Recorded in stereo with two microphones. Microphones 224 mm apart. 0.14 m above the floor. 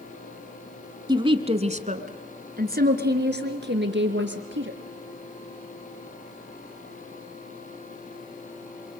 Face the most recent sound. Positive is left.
turn(degrees=-60)  # may be behind; listen again after turning